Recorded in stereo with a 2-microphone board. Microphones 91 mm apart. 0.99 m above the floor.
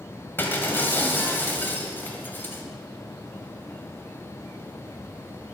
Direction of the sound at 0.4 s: 25° left (ahead or behind).